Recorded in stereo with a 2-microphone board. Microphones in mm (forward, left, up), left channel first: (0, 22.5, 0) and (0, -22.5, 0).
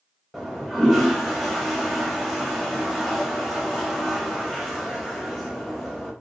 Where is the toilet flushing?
Centre (ahead or behind), 0.7 m.